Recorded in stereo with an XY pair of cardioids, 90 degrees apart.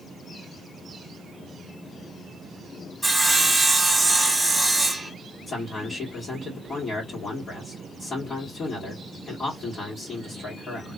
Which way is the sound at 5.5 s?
55° left.